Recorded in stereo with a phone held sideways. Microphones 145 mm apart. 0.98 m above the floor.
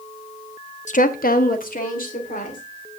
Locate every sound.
0.9 s a woman speaking: 55° left (ahead or behind), 0.6 m; by 2.6 s 70° left (ahead or behind), 3 m